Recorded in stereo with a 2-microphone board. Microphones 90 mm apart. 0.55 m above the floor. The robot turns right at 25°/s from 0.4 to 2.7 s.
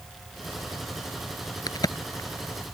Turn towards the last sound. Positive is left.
turn(degrees=25)  # may be behind; listen again after turning